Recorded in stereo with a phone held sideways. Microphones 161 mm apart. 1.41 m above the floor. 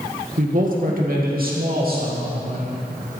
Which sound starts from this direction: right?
A man speaking, at 0.4 s.